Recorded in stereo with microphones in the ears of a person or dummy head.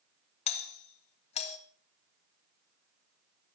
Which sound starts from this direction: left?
A doorbell, at 0.5 s.